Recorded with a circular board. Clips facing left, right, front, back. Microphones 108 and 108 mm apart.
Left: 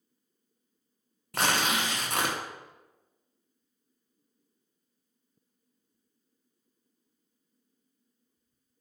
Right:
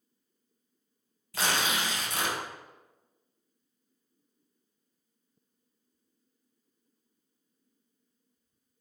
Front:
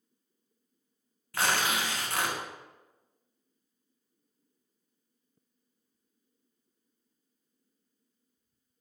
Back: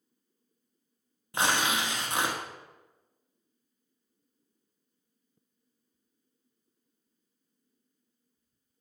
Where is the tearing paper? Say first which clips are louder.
Left 2 dB, back 1 dB; 110° left, 0.6 m.